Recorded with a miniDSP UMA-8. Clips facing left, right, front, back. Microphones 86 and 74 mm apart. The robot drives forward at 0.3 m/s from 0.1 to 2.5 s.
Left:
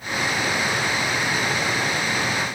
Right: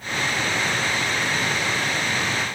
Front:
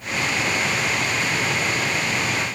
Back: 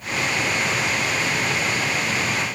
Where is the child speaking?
I don't hear a child speaking.